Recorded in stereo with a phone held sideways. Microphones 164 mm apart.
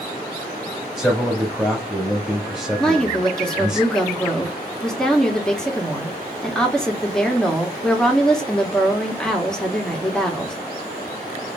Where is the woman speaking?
5° left (ahead or behind), 1.1 m.